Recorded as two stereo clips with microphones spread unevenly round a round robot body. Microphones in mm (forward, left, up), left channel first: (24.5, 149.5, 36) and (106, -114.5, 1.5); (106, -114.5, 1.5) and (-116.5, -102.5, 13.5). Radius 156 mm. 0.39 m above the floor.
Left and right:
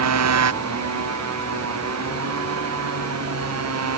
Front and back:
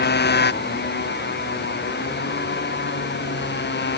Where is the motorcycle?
45° right; by 4.0 s 40° right.